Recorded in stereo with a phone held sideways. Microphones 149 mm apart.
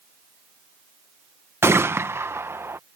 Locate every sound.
1.6 s a gunshot: 15° right (ahead or behind)